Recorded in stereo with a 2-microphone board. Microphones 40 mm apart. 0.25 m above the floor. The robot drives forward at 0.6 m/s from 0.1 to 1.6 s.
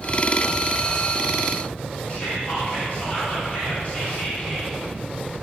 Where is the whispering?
35° left (ahead or behind), 2.5 m.